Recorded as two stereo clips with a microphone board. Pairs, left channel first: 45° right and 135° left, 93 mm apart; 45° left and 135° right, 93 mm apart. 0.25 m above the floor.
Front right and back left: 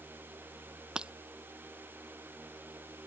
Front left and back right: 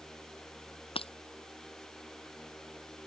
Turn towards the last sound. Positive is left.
turn(degrees=55)